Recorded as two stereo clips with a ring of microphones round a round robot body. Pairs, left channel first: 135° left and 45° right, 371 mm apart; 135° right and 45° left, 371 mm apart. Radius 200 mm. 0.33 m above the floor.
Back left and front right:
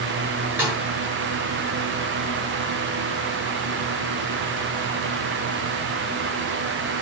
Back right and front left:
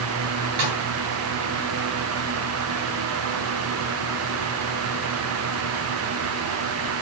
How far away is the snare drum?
About 7 m.